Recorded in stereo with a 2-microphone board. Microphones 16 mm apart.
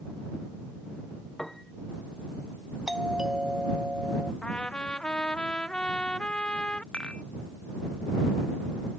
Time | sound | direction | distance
1.4 | a piano | 20° left (ahead or behind) | ?
2.9 | a doorbell | 60° right (ahead or behind) | ?
4.4 | a trumpet | 80° left | ?
6.9 | dishes clattering | 85° left | ?